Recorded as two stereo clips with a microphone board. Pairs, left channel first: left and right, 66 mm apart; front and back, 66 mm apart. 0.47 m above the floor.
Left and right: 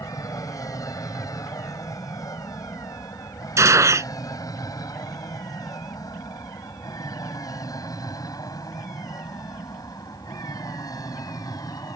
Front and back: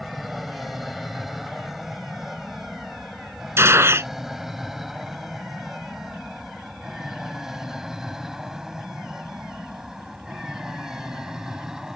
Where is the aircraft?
90° left; by 12.0 s 100° left.